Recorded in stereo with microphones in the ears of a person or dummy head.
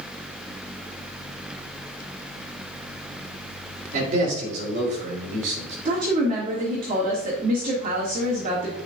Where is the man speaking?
50° right (ahead or behind), 4 m.